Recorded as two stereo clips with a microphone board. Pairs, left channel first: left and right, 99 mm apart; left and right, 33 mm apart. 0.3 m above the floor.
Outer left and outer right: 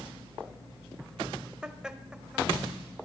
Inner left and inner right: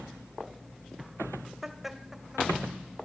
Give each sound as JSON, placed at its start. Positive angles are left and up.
{"t": 1.6, "sound": "laughter", "side_deg": -10, "distance_m": 1.1}